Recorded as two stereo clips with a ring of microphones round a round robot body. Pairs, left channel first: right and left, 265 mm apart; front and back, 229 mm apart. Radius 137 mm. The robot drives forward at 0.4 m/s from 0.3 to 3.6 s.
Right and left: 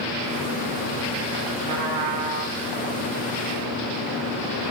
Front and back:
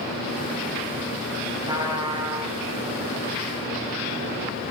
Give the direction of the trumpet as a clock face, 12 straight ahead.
8 o'clock.